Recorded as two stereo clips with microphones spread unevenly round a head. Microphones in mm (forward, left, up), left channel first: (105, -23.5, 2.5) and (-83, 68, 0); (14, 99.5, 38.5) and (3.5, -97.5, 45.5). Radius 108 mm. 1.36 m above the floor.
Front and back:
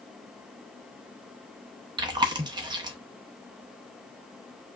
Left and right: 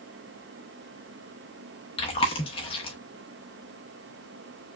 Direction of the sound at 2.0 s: 115° left.